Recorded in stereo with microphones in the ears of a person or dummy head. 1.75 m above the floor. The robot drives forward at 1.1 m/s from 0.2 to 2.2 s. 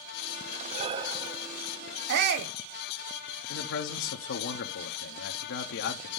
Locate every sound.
0.7 s breathing: 45° right (ahead or behind), 0.6 m; by 1.6 s 15° right (ahead or behind), 1.4 m
2.1 s a shout: 70° right (ahead or behind), 1.0 m; by 2.5 s 60° right (ahead or behind), 1.0 m
3.5 s a man speaking: 75° left (ahead or behind), 1.0 m